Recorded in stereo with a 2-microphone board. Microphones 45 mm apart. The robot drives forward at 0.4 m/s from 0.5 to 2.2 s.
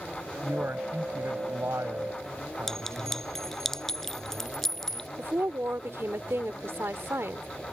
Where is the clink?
5° left (ahead or behind).